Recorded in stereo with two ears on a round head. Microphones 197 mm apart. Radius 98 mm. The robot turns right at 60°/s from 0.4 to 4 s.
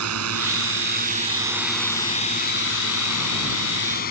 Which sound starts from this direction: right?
A drone, at 0.0 s.